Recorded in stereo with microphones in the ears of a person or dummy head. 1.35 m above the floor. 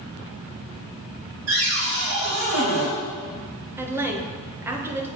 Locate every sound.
1.5 s a cupboard door: 80° right, 3 m
3.8 s a woman speaking: 10° right (ahead or behind), 1.1 m